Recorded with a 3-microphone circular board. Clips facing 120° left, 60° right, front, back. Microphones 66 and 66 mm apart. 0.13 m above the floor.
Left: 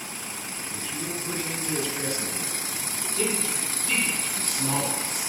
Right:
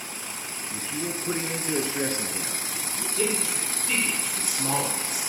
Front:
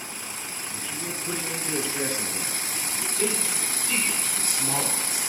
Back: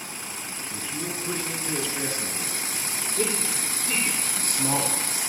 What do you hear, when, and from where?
0.7 s a man speaking: 110° right, 2.0 m; by 3.1 s 20° right, 2 m
3.2 s a man speaking: 135° right, 5 m